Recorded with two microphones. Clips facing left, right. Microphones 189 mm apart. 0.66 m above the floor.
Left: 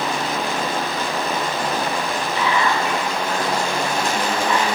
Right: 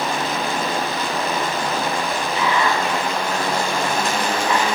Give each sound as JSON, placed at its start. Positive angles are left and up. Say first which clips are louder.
{"t": 2.4, "sound": "whispering", "louder": "even", "side_deg": -15, "distance_m": 1.1}